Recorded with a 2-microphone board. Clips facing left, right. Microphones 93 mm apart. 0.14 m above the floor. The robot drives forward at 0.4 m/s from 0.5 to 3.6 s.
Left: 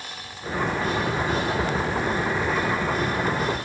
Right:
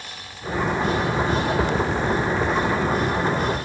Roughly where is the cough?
No cough in this recording.